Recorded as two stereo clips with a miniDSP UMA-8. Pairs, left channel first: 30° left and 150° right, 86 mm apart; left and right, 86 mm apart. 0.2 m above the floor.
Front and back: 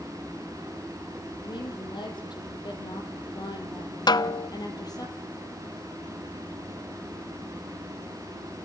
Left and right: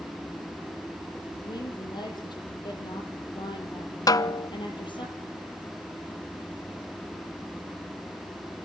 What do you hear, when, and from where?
1.4 s a woman speaking: 55° left, 6.5 m; by 5.1 s 70° left, 5 m
4.1 s a snare drum: 55° left, 0.5 m